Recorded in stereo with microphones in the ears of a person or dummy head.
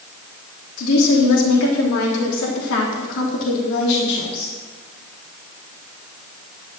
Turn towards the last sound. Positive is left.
turn(degrees=60)  # may be behind; listen again after turning